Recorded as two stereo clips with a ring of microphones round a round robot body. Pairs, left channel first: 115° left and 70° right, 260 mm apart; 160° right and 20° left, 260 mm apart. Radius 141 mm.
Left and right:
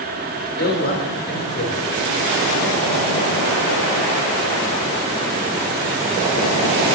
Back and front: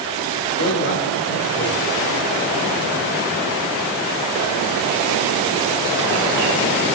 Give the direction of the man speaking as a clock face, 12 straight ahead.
7 o'clock.